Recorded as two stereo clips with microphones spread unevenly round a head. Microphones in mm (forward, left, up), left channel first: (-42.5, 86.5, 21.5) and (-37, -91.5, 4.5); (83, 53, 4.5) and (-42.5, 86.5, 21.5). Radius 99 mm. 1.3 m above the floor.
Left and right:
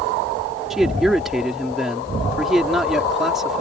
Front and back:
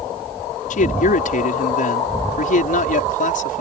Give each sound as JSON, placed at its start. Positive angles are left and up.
{"t": 0.7, "sound": "a man speaking", "azimuth_deg": 0}